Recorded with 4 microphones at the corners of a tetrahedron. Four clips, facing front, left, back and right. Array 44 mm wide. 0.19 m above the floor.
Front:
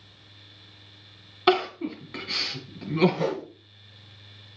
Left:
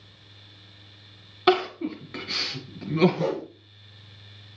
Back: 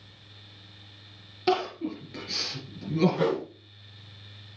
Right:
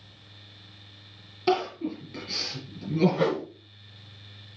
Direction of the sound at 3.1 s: 125° right.